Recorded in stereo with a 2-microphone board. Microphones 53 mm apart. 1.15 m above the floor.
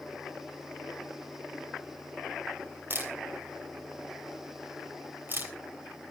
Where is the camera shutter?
40° right (ahead or behind), 3 m.